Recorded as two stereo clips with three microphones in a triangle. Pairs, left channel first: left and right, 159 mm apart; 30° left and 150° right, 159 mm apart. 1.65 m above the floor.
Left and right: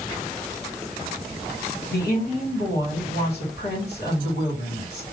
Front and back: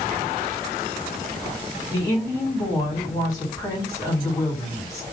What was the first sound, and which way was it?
A woman speaking, 100° left.